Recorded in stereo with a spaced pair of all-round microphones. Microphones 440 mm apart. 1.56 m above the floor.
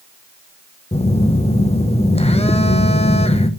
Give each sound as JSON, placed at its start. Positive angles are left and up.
{"t": 0.9, "sound": "a phone buzzing", "side_deg": 15, "distance_m": 0.5}